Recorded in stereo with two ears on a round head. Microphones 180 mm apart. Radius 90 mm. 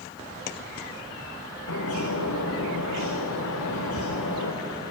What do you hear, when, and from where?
1.7 s a bird: 85° left, 5 m